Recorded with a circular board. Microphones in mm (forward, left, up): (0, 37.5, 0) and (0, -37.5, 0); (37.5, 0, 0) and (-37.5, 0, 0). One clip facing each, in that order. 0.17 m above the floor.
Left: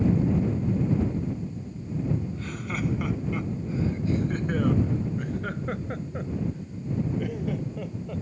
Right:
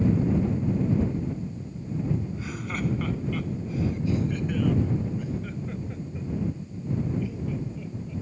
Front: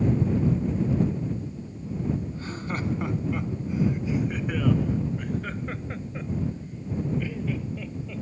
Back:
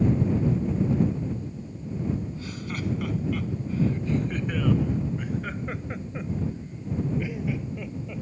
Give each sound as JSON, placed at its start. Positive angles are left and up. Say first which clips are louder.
{"t": 2.3, "sound": "laughter", "louder": "even, front 2 dB", "azimuth_deg": -15}